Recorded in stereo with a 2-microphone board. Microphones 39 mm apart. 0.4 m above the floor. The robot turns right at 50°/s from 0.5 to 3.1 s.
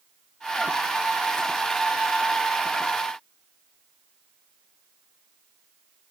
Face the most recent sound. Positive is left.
No sound to turn to.